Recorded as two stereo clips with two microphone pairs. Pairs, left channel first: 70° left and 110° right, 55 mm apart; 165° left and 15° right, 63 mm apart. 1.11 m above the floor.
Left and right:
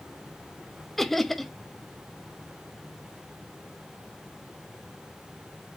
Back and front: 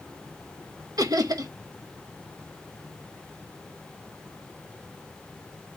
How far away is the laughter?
About 1.0 m.